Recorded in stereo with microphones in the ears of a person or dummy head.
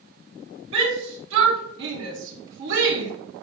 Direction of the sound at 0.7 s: 85° right.